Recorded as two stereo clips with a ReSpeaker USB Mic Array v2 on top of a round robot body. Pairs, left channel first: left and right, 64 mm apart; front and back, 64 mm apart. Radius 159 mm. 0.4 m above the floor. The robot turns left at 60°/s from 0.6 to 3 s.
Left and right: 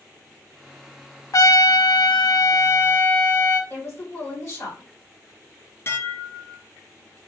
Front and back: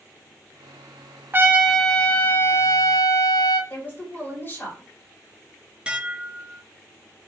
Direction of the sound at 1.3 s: 125° left.